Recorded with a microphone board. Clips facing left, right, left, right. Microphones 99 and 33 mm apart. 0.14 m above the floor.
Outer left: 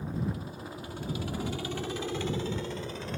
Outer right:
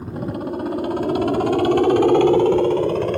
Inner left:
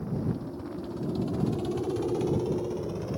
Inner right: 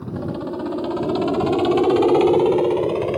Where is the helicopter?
65° right (ahead or behind); by 3.2 s 60° right (ahead or behind).